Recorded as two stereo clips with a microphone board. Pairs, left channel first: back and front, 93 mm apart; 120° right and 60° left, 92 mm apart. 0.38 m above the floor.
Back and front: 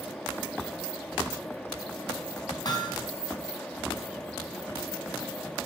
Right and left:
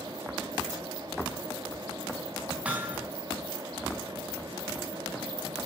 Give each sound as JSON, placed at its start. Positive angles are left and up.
{"t": 2.6, "sound": "hammering", "azimuth_deg": 140, "distance_m": 2.5}